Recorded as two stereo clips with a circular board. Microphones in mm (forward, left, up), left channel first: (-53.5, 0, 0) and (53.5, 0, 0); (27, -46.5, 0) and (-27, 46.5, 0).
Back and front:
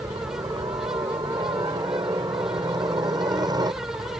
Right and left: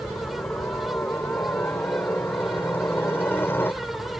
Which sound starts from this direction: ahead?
A helicopter, at 0.0 s.